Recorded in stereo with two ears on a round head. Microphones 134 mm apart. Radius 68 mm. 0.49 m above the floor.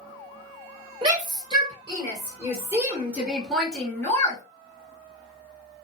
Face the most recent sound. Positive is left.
turn(degrees=25)  # may be behind; listen again after turning